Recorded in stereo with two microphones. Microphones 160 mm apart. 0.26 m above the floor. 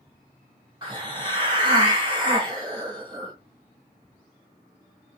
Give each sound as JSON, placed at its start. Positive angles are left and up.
{"t": 0.8, "sound": "a hiss", "side_deg": -30, "distance_m": 1.2}